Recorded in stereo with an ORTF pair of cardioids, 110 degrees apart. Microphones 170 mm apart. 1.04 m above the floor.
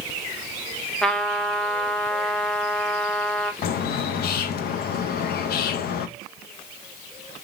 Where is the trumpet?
5° left, 0.6 m.